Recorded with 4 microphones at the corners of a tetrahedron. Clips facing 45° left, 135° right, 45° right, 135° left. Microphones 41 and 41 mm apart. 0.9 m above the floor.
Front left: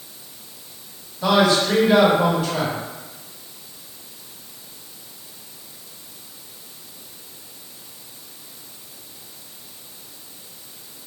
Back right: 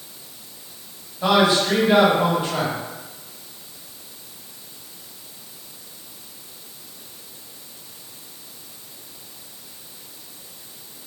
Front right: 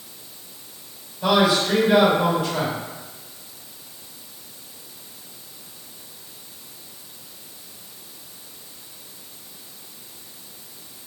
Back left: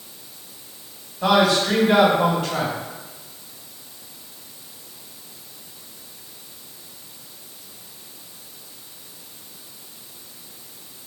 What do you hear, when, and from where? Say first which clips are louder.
1.2 s a man speaking: even, back left 1 dB; 160° left, 2.0 m